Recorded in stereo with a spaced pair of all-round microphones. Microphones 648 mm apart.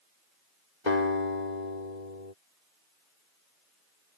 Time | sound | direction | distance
0.9 | a guitar | 90° left | ?